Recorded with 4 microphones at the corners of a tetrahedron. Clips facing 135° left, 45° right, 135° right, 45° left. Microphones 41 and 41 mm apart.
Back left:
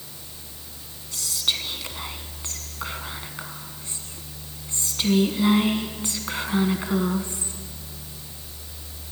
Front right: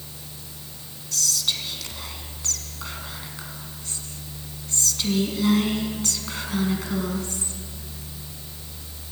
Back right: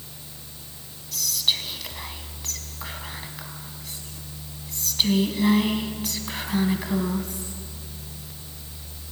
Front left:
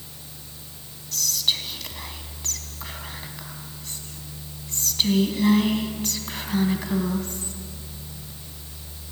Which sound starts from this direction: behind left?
Whispering, at 1.1 s.